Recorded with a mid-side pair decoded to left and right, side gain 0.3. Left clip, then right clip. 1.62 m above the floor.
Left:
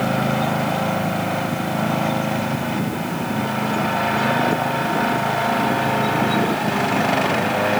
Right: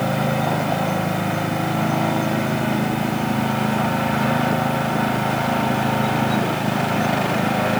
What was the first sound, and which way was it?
Only background noise.